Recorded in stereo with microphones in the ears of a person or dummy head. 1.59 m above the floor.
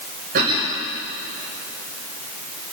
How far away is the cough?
About 6 m.